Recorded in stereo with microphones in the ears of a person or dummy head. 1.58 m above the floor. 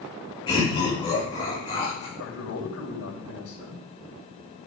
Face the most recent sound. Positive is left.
turn(degrees=80)